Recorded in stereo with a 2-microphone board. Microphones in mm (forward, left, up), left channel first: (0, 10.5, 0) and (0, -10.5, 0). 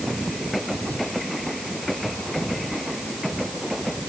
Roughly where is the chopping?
I don't hear chopping.